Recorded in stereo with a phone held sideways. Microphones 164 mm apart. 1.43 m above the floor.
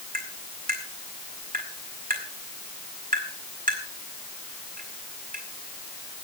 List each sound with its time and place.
0.1 s tapping: 60° right (ahead or behind), 5 m